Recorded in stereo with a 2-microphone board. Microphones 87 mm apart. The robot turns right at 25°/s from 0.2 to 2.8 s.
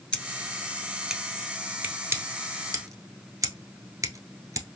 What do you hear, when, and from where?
0.1 s scissors: 10° left (ahead or behind), 0.9 m; by 4.7 s 40° right (ahead or behind), 0.9 m